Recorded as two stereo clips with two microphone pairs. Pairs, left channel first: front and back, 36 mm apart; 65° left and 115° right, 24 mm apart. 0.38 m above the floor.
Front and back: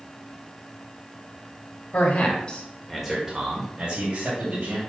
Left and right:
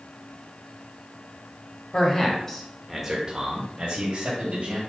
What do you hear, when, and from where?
1.9 s a man speaking: 20° left, 2 m; by 4.8 s 140° right, 3 m